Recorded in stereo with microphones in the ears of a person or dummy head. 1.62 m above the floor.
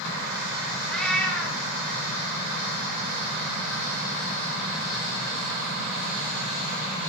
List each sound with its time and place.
0.9 s a cat meowing: centre (ahead or behind), 1.8 m